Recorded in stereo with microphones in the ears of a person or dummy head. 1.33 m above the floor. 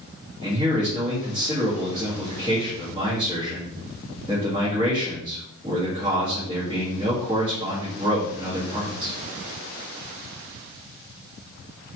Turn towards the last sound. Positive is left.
turn(degrees=-35)  # may be behind; listen again after turning